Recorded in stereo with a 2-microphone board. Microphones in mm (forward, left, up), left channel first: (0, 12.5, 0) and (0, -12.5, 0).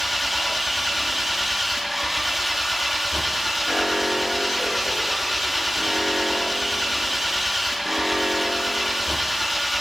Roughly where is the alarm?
Centre.